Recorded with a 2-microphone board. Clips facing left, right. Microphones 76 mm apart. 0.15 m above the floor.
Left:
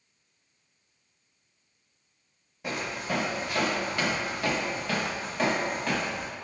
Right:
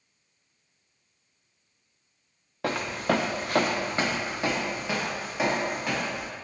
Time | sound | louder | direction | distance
2.6 | footsteps | right 6 dB | 80° right | 0.6 m